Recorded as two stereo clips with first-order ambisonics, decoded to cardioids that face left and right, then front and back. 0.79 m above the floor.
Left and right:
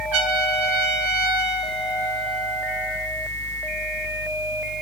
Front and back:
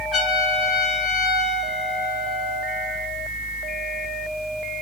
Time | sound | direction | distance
0.1 | a trumpet | 80° right | 5 m